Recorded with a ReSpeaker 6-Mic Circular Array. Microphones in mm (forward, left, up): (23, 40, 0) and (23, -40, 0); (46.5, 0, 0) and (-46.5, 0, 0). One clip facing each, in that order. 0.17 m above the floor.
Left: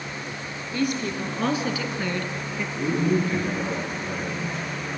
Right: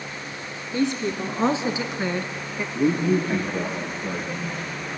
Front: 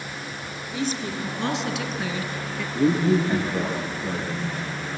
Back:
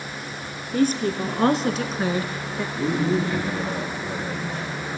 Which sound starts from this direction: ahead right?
A man speaking, at 2.8 s.